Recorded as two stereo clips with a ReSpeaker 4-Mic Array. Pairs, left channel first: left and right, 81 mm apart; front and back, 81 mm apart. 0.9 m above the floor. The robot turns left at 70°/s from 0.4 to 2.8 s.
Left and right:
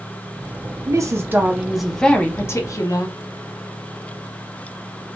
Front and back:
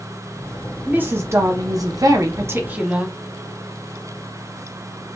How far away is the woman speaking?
About 0.7 m.